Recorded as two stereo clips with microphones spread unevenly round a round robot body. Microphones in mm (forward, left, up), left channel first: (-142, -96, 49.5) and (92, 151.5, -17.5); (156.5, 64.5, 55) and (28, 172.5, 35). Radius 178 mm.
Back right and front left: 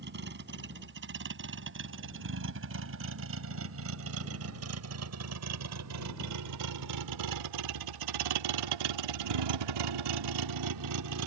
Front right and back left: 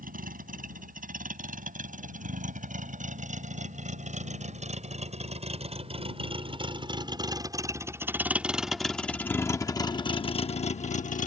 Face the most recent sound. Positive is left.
turn(degrees=0)